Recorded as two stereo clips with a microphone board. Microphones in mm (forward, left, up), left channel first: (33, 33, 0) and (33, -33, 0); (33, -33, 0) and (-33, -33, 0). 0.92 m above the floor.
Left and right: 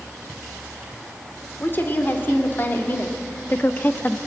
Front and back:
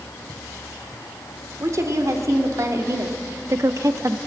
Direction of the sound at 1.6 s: 145° left.